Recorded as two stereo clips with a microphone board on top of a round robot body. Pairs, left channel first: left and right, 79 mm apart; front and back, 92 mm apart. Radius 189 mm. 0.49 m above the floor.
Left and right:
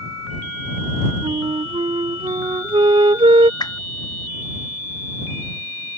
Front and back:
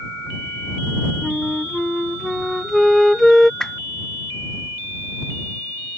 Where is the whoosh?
80° left.